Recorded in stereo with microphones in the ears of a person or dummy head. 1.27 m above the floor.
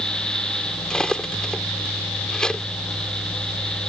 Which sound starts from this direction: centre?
Cutlery clinking, at 0.9 s.